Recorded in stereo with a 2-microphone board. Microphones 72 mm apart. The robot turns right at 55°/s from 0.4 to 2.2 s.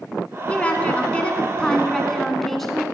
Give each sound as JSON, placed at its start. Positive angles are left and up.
{"t": 0.5, "sound": "a woman speaking", "side_deg": 20, "distance_m": 1.0}